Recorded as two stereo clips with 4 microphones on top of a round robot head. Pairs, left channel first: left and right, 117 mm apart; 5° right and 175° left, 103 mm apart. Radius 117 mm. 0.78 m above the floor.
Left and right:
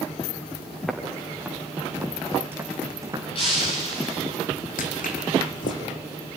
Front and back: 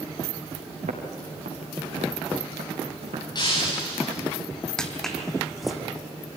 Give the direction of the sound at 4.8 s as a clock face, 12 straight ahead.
9 o'clock.